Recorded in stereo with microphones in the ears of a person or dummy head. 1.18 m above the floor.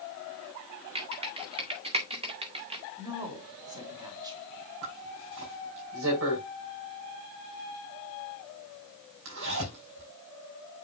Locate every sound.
0.9 s typing on a keyboard: 30° right (ahead or behind), 1.7 m
3.0 s a woman speaking: 20° right (ahead or behind), 2.5 m
4.8 s a zipper: 80° right, 5 m